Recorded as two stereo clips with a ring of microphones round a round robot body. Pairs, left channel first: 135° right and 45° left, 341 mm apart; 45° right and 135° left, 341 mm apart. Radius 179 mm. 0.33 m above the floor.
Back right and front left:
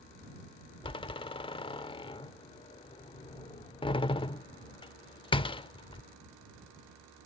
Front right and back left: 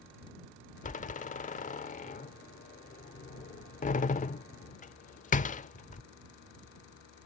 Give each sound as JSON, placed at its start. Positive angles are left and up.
{"t": 0.8, "sound": "a door slam", "azimuth_deg": -80}